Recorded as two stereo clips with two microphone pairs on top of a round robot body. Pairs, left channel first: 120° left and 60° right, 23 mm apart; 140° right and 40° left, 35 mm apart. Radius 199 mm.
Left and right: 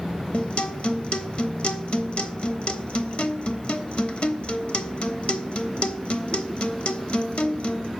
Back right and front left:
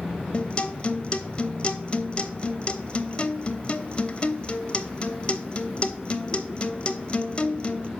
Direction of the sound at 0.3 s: 160° left.